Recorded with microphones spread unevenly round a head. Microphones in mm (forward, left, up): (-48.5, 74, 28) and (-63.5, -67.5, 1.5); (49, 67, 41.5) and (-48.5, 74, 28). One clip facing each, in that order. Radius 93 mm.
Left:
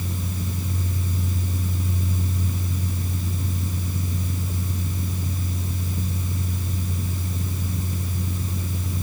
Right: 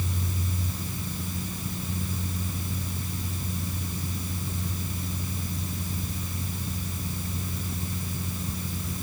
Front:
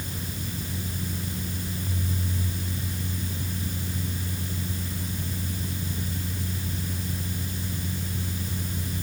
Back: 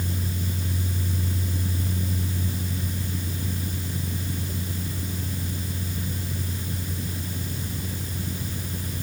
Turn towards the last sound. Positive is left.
No sound to turn to.